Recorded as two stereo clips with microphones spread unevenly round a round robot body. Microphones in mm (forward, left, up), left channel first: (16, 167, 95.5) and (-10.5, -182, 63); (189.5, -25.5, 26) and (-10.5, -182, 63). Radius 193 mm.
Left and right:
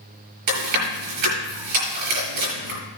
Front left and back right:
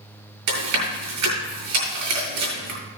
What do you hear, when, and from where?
0.5 s chewing: 130° right, 6.5 m